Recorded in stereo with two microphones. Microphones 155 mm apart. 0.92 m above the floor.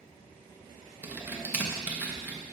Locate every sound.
1.0 s typing on a keyboard: 10° right (ahead or behind), 0.8 m